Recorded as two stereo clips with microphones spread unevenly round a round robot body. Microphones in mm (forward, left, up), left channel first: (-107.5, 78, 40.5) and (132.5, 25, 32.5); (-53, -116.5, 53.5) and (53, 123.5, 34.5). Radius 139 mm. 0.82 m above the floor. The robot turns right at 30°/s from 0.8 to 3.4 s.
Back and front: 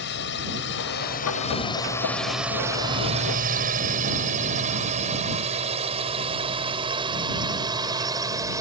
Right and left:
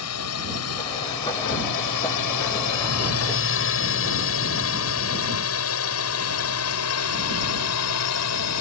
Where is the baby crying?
No baby crying in this recording.